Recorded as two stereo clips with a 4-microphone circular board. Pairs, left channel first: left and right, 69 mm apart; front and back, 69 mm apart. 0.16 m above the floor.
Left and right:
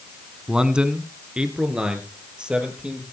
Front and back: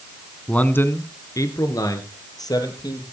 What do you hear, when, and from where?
0.5 s a man speaking: 35° right, 1.1 m; by 3.0 s 10° right, 4 m